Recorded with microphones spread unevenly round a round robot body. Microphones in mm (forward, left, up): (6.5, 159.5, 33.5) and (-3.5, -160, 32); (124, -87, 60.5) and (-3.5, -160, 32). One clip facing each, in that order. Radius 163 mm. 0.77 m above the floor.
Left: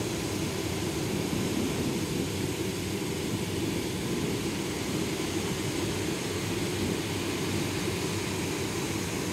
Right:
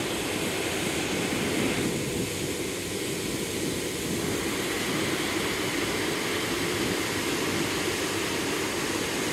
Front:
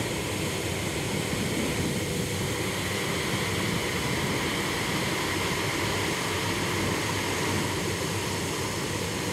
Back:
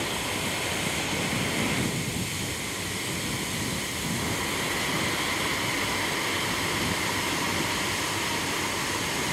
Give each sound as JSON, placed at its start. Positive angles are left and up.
{"t": 0.0, "sound": "an aircraft", "azimuth_deg": 30}